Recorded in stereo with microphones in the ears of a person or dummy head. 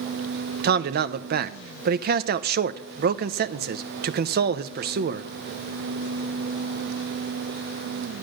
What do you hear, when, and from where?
0.6 s a man speaking: 50° right (ahead or behind), 0.6 m